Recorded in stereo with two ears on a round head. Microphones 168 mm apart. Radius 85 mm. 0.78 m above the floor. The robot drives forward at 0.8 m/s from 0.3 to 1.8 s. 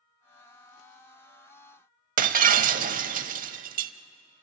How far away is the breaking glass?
About 0.8 m.